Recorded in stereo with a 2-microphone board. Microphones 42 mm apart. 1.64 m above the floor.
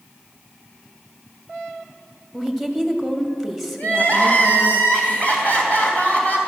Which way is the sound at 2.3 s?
5° left (ahead or behind).